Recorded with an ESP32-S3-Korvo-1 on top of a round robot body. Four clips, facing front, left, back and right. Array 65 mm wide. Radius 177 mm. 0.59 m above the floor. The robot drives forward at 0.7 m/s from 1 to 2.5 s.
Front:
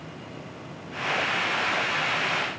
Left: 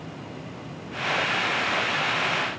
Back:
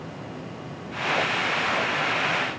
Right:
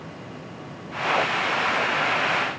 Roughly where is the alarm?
No alarm in this recording.